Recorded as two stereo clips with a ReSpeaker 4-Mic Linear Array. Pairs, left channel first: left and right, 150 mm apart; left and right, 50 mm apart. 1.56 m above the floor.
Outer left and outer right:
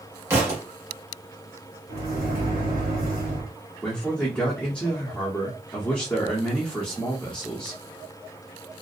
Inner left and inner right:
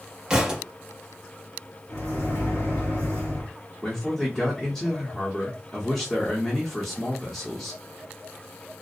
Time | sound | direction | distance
0.3 | a thud | 15° right (ahead or behind) | 0.9 m
1.9 | a microwave | 75° left (ahead or behind) | 1.5 m
3.8 | a man speaking | 10° left (ahead or behind) | 0.8 m